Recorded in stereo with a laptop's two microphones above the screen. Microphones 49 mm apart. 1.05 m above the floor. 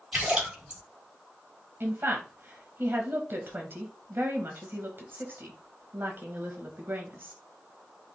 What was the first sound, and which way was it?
A splash, 20° right (ahead or behind).